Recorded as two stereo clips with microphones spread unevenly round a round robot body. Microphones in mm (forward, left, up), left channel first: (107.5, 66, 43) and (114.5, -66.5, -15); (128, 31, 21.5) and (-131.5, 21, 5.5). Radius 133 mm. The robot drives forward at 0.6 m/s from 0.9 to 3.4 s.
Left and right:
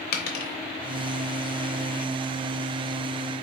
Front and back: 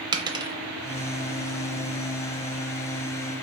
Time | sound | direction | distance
0.1 | a dropped coin | 110° left | 0.7 m